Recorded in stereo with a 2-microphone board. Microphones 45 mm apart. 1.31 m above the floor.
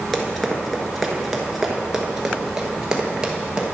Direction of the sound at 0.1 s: 10° left (ahead or behind).